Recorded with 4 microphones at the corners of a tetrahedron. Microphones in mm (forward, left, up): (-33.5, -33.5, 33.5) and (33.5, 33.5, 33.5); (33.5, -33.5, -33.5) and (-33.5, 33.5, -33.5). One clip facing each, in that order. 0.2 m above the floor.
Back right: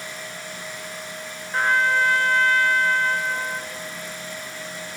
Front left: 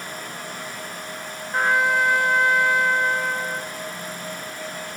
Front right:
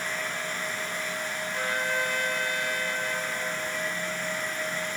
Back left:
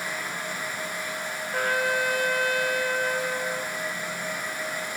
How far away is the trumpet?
About 3.5 m.